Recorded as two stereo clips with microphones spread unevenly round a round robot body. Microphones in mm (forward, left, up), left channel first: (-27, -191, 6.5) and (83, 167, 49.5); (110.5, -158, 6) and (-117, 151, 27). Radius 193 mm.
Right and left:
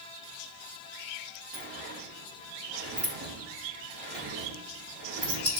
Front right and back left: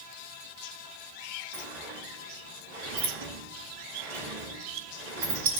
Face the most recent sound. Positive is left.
turn(degrees=140)